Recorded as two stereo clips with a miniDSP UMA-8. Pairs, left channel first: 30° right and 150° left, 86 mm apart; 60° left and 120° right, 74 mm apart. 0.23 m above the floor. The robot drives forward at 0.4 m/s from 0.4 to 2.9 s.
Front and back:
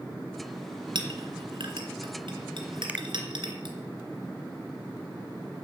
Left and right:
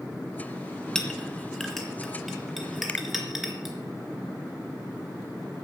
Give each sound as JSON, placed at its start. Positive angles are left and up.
{"t": 0.9, "sound": "a clink", "azimuth_deg": 140, "distance_m": 2.0}
{"t": 2.9, "sound": "a finger snap", "azimuth_deg": 100, "distance_m": 0.8}